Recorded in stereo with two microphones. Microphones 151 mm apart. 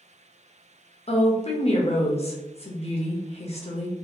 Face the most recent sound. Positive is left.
turn(degrees=45)  # may be behind; listen again after turning